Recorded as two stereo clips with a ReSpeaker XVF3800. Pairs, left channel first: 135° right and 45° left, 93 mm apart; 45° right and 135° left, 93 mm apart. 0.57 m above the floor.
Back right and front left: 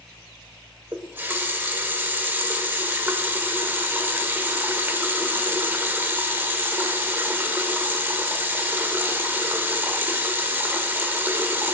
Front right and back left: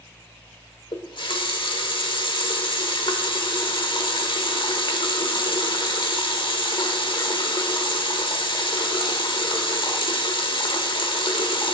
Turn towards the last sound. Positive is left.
turn(degrees=-20)